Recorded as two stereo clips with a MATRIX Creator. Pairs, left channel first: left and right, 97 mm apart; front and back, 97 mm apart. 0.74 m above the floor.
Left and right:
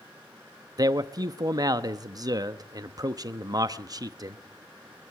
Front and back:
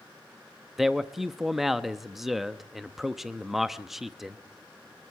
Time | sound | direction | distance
0.8 | a man speaking | 95° right | 0.7 m